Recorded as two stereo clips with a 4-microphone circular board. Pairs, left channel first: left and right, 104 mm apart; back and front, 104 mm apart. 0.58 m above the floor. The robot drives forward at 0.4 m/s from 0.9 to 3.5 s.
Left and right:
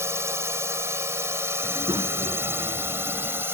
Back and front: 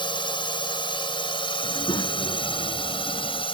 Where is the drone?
150° right; by 3.5 s 155° right.